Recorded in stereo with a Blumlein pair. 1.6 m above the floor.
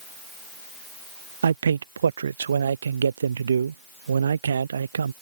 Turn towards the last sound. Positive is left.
turn(degrees=-70)